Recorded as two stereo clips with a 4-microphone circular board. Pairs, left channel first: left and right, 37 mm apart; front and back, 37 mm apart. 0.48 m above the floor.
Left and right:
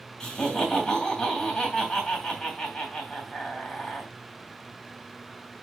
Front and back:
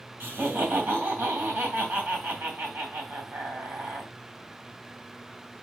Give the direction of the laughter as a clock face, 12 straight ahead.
7 o'clock.